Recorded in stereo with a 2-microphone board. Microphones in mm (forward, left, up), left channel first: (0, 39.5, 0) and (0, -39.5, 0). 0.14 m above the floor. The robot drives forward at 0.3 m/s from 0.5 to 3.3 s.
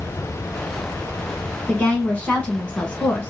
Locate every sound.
1.7 s a woman speaking: 15° left (ahead or behind), 1.3 m